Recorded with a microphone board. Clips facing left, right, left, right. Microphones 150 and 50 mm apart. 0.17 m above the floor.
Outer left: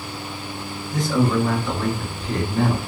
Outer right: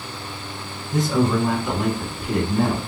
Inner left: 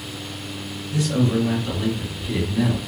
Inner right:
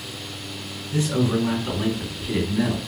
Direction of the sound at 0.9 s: 30° right (ahead or behind).